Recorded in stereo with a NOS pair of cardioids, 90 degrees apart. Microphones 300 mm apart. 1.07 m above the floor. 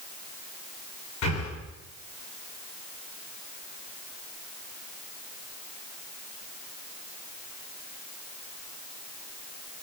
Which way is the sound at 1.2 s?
60° left.